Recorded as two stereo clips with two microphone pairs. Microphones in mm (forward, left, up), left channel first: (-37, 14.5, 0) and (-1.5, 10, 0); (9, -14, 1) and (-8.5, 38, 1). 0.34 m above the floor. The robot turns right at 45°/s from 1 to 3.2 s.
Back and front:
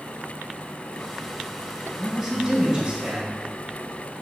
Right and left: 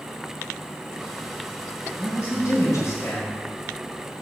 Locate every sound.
2.0 s a man speaking: 115° right, 2.5 m; by 3.4 s 60° right, 2.5 m